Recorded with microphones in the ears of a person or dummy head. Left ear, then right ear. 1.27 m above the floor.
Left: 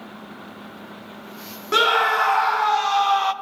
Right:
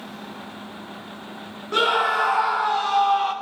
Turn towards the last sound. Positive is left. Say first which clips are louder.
# left 2 dB
turn(degrees=60)  # may be behind; listen again after turning